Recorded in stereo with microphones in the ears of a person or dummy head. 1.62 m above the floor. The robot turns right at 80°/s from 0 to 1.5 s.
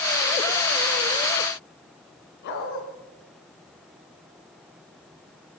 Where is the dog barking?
60° left (ahead or behind), 4.5 m.